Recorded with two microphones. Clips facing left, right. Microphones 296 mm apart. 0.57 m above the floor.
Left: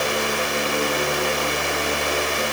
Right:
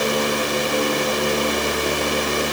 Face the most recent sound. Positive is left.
No sound to turn to.